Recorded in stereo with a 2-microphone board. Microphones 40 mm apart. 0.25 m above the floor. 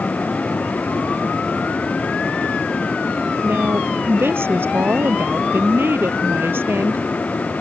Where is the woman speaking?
75° right (ahead or behind); by 7.0 s 65° right (ahead or behind).